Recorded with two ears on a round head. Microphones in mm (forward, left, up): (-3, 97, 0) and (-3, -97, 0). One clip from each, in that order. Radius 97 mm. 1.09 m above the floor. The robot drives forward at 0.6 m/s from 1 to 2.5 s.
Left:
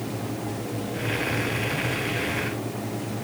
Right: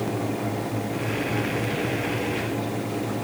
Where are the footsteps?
I don't hear footsteps.